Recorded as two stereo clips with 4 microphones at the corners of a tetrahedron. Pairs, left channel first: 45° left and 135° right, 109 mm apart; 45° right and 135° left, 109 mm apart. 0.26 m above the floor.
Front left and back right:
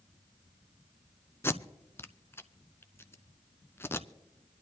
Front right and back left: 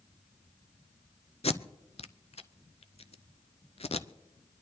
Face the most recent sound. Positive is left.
turn(degrees=-25)